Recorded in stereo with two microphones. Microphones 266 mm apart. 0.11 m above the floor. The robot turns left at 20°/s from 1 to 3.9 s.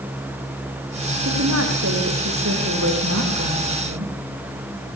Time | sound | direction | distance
1.2 | a woman speaking | 60° right | 8 m